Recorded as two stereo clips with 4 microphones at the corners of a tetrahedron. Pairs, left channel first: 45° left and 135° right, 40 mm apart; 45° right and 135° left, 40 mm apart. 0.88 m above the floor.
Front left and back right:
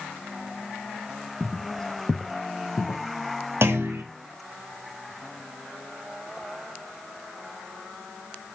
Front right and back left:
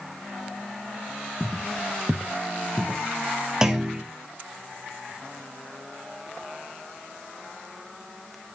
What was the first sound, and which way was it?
Footsteps, 120° right.